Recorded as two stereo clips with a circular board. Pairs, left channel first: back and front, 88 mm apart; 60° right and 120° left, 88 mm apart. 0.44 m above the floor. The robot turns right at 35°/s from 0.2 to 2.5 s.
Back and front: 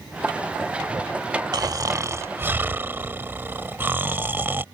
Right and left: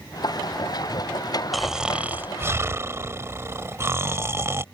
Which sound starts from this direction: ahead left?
Snoring, at 1.5 s.